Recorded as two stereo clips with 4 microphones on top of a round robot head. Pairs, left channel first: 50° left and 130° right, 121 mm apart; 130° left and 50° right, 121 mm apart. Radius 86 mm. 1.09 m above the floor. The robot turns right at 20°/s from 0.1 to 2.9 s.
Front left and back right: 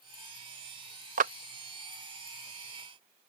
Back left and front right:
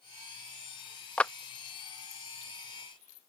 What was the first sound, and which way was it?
A clap, 145° right.